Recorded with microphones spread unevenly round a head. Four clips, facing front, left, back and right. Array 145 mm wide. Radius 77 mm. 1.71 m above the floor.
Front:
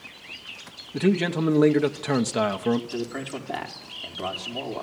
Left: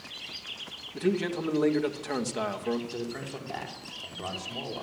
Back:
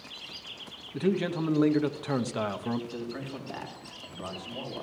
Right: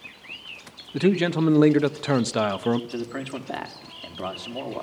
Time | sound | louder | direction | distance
0.9 | a man speaking | right 7 dB, front 5 dB | 55° right | 1.1 m
2.9 | a man speaking | right 5 dB, front 6 dB | 50° right | 4 m